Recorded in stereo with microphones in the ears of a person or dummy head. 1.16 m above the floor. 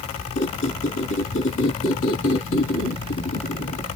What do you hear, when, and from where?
0.3 s a squeak: 65° left (ahead or behind), 1.2 m